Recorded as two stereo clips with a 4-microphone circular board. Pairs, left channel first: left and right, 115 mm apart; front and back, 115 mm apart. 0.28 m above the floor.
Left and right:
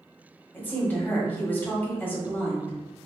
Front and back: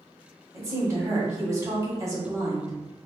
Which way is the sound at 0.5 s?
150° left.